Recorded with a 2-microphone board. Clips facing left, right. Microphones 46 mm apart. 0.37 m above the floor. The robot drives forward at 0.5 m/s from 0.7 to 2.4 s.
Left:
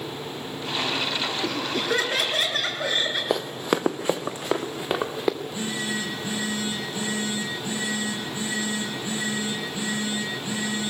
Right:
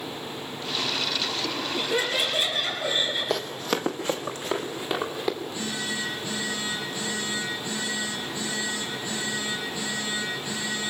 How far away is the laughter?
About 4.5 m.